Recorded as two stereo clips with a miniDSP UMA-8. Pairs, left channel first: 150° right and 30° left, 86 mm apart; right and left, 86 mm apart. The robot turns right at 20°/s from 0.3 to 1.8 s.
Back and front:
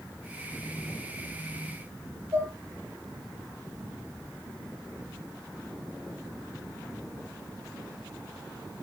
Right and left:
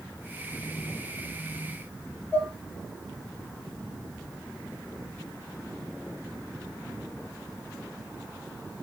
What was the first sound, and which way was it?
Dishes clattering, 25° right.